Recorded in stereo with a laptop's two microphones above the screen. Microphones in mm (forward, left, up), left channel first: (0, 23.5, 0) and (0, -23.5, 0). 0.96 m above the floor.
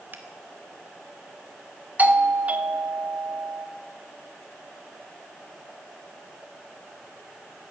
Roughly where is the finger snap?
Right.